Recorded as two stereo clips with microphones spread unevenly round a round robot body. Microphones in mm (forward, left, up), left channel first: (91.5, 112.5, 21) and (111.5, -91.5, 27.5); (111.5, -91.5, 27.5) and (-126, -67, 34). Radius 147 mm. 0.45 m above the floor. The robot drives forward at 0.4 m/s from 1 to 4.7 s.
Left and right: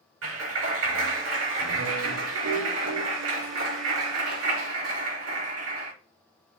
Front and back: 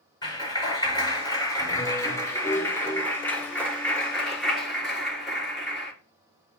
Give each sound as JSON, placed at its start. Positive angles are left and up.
{"t": 0.2, "sound": "a clap", "azimuth_deg": -80, "distance_m": 5.0}